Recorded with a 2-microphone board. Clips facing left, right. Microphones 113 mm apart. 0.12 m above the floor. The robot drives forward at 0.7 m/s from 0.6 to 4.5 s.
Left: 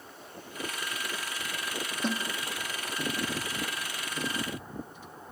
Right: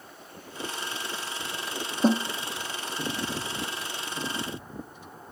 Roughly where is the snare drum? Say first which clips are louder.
Right 10 dB; right.